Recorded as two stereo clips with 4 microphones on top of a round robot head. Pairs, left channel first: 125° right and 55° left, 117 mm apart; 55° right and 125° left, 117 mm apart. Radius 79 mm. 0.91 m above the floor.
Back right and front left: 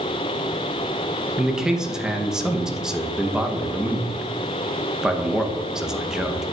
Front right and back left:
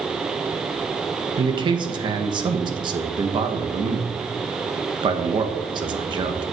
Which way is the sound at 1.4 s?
135° left.